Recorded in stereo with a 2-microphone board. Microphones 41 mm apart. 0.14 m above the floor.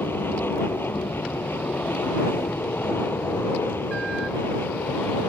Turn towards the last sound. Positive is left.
turn(degrees=65)  # may be behind; listen again after turning